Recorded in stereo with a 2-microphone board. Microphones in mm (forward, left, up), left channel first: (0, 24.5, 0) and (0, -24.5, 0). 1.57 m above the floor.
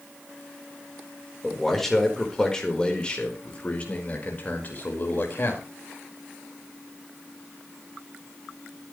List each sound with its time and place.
1.4 s a man speaking: 5° left (ahead or behind), 4.5 m; by 5.7 s 45° left (ahead or behind), 5.5 m